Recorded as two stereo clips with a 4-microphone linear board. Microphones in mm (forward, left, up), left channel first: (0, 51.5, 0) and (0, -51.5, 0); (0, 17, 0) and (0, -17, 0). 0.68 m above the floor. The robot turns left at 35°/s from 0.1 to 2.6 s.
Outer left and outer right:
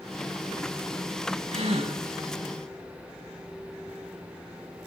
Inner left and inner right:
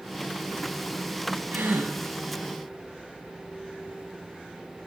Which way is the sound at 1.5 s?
70° right (ahead or behind).